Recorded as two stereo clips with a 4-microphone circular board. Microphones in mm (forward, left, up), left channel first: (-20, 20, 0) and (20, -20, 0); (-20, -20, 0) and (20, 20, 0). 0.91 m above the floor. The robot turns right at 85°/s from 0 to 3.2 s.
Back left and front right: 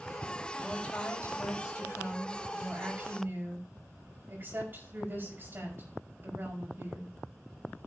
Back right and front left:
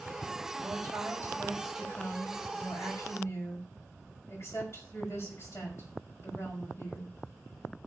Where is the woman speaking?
45° left, 5.5 m; by 7.1 s 95° right, 5.5 m.